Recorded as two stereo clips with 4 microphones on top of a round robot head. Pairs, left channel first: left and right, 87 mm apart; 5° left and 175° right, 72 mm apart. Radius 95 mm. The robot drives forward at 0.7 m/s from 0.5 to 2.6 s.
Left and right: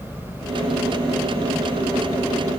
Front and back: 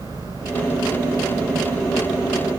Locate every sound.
0.0 s an engine running: 145° left